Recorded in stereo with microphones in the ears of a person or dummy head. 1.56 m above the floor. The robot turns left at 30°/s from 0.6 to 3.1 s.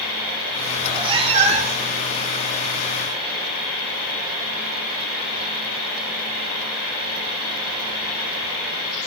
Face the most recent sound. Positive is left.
turn(degrees=-90)